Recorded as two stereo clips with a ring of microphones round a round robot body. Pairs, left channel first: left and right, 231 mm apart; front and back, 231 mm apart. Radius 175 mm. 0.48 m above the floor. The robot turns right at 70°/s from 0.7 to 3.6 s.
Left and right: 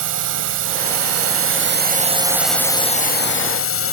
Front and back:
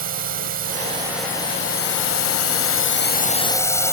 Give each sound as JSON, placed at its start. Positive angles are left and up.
{"t": 0.0, "sound": "a drone", "azimuth_deg": -125}